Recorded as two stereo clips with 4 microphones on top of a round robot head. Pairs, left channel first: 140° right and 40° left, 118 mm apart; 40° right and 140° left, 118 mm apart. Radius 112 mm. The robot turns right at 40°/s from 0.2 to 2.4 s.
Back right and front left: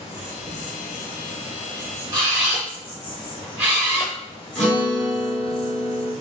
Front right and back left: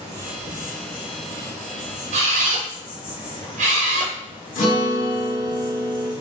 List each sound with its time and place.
0.0 s an insect: straight behind, 1.1 m; by 6.2 s 90° right, 1.1 m
2.1 s a camera shutter: 105° left, 0.6 m; by 4.1 s 115° left, 0.6 m
4.5 s a guitar: 55° right, 1.3 m